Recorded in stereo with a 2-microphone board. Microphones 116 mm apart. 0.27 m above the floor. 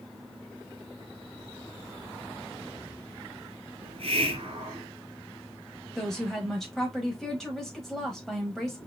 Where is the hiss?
65° right (ahead or behind), 1.1 m.